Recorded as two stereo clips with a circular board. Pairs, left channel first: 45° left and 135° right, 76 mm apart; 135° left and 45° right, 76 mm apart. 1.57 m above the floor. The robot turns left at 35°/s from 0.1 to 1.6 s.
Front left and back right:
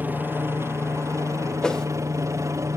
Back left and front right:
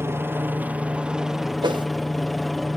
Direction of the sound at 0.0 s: 85° right.